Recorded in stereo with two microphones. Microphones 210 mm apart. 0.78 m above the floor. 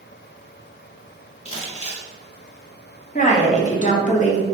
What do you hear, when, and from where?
1.4 s crumpling: 30° left (ahead or behind), 0.9 m
3.1 s a woman speaking: 35° left (ahead or behind), 0.7 m